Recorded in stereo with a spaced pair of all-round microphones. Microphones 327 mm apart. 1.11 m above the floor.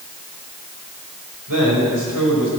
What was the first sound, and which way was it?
A man speaking, 80° right.